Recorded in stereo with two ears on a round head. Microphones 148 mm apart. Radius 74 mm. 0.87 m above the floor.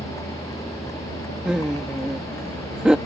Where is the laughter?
5° right (ahead or behind).